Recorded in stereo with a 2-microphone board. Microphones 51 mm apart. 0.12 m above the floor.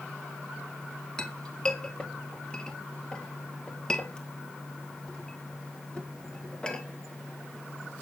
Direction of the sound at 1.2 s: 15° left (ahead or behind).